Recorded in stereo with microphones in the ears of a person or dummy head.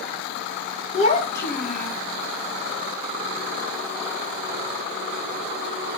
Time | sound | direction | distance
0.9 | a child speaking | 40° left (ahead or behind) | 1.3 m